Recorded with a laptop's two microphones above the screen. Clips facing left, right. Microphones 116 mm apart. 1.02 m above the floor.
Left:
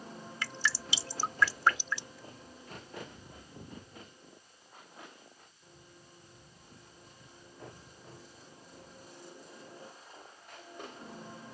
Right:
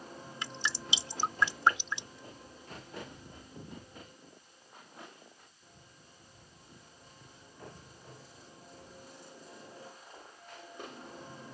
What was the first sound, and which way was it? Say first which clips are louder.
Dripping: left 2 dB; 20° right (ahead or behind).